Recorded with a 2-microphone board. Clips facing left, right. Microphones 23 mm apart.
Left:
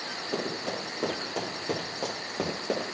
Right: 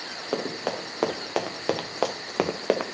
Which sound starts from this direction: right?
Running footsteps, at 0.3 s.